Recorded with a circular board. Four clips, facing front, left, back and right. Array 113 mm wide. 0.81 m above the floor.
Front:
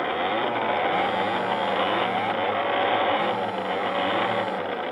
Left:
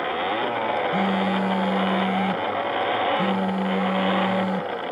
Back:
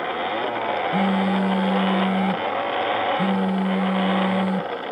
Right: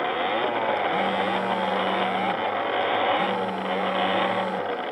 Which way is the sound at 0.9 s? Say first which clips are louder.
Left 1 dB, back 3 dB; 160° left.